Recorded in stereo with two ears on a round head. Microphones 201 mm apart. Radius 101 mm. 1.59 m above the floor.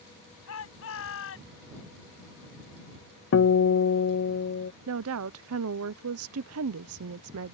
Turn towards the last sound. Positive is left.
turn(degrees=-70)  # may be behind; listen again after turning